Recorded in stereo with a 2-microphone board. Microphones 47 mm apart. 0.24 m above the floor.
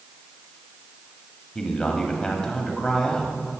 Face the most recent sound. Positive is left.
turn(degrees=15)  # may be behind; listen again after turning